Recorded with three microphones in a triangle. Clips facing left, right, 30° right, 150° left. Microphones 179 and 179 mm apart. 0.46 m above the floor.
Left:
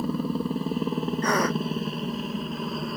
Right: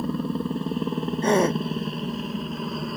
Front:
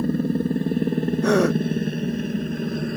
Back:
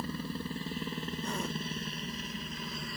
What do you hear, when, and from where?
0.0 s a helicopter: straight ahead
1.2 s a gasp: 25° right